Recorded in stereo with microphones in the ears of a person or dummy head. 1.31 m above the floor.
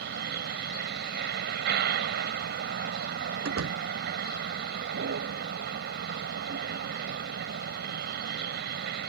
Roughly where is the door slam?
Right.